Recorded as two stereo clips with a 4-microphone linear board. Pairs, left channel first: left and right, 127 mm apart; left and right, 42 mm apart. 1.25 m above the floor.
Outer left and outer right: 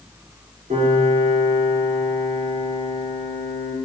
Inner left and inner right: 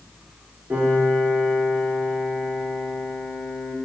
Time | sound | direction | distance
0.7 | a piano | 70° right (ahead or behind) | 1.8 m